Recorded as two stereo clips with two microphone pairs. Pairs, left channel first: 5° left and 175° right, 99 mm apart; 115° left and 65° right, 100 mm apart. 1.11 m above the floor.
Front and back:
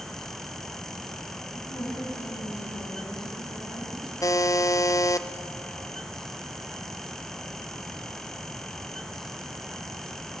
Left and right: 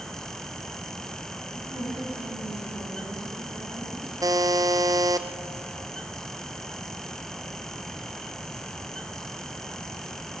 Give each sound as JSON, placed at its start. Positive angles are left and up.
{"t": 1.5, "sound": "a woman speaking", "azimuth_deg": -35, "distance_m": 7.0}
{"t": 4.2, "sound": "a buzzer", "azimuth_deg": -35, "distance_m": 0.8}